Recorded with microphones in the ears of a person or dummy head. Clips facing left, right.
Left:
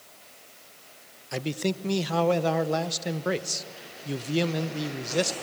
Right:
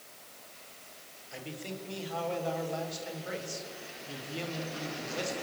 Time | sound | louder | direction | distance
1.3 | a man speaking | left 12 dB | 70° left (ahead or behind) | 1.0 m